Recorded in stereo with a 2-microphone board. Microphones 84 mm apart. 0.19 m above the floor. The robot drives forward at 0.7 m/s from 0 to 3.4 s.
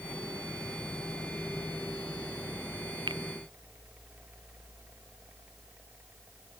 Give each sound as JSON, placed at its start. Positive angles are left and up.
{"t": 3.1, "sound": "a finger snap", "side_deg": -80}